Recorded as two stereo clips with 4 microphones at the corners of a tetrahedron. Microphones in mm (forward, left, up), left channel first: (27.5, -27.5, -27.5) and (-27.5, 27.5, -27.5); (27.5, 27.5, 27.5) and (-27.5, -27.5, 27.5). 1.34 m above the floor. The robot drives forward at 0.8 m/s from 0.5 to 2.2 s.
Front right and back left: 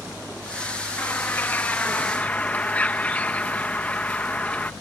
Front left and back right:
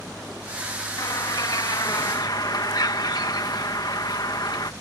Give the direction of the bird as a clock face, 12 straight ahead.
11 o'clock.